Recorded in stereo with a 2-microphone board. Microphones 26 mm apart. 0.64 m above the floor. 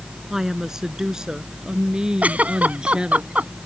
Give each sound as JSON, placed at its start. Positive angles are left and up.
{"t": 0.3, "sound": "a woman speaking", "side_deg": -20}
{"t": 2.2, "sound": "a giggle", "side_deg": -70}